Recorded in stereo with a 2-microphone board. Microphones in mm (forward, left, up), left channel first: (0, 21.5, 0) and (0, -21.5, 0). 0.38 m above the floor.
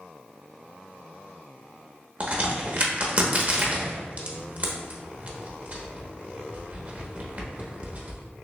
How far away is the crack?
About 0.7 m.